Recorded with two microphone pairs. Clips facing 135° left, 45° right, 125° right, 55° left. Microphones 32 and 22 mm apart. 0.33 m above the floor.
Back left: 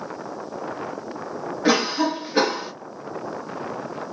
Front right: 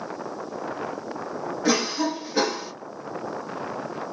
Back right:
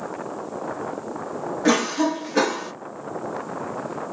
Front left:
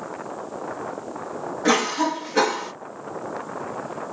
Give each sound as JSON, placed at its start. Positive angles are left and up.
{"t": 1.6, "sound": "a cough", "azimuth_deg": 150, "distance_m": 1.0}